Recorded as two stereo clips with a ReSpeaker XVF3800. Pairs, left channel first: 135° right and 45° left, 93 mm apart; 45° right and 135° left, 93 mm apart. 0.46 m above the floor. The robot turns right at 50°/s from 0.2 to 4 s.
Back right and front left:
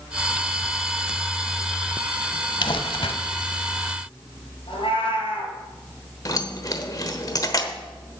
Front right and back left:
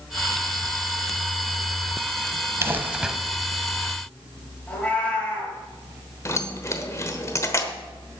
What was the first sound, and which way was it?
Crumpling, 165° right.